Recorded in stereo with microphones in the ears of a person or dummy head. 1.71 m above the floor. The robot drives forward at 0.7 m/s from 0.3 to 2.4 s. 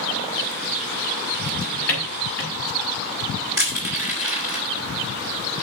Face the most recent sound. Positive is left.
turn(degrees=-15)  # may be behind; listen again after turning